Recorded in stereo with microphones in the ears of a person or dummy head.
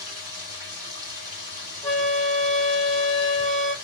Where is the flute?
15° left (ahead or behind), 1.3 m.